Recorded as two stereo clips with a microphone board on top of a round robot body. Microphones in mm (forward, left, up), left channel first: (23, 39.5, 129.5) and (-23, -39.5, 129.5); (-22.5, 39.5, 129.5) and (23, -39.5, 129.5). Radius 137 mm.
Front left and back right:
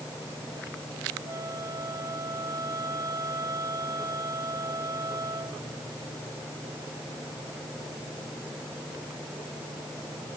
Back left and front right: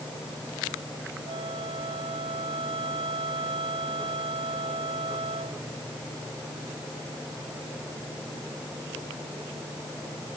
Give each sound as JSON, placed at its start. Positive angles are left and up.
{"t": 1.3, "sound": "a flute", "azimuth_deg": -70}